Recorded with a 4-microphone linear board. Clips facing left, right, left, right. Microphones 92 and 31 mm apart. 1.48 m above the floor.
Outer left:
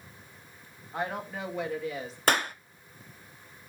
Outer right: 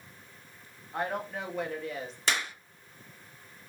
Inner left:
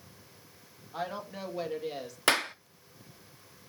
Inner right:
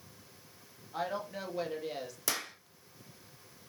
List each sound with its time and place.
0.9 s a woman speaking: centre (ahead or behind), 2 m
2.3 s a clap: 50° left (ahead or behind), 0.8 m